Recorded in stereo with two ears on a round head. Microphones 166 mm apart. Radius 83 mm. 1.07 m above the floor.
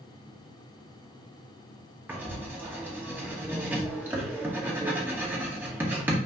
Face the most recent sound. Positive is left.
turn(degrees=-10)  # may be behind; listen again after turning